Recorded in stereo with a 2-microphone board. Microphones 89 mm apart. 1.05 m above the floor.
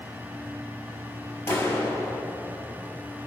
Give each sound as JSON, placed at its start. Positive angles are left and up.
{"t": 1.5, "sound": "a clap", "side_deg": 30, "distance_m": 4.5}